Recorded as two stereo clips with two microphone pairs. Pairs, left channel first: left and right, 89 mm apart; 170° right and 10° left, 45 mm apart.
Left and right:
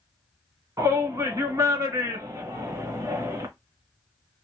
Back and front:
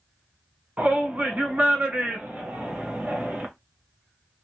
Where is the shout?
45° right, 1.3 m.